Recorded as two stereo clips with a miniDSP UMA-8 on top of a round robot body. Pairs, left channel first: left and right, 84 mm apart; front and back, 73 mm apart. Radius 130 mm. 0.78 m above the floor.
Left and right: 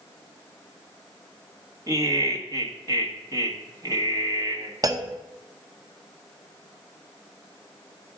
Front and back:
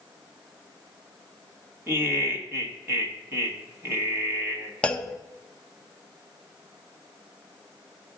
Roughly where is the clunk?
Right.